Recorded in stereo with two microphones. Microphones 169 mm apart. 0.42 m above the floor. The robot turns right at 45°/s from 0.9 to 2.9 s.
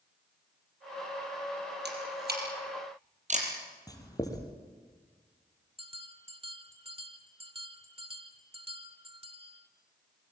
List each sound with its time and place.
1.9 s a camera shutter: 85° right, 5 m; by 3.5 s 45° right (ahead or behind), 5 m
3.9 s writing: 20° left (ahead or behind), 4 m
5.8 s a bell: 35° right (ahead or behind), 1.5 m